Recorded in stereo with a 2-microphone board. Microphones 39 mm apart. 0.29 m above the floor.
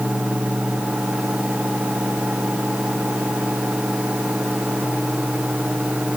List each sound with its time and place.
Only background noise.